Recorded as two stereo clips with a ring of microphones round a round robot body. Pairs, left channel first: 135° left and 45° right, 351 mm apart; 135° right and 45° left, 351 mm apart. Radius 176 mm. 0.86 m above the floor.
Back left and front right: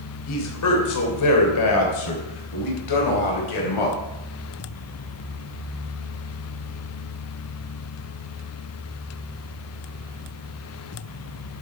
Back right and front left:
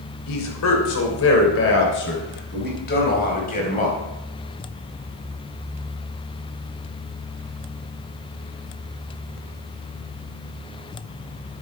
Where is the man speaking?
Straight behind, 3 m; by 4.0 s 155° left, 5 m.